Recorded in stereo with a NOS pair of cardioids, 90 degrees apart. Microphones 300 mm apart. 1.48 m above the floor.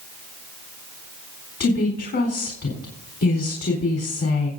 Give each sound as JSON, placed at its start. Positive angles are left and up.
{"t": 1.6, "sound": "a woman speaking", "azimuth_deg": 55, "distance_m": 4.0}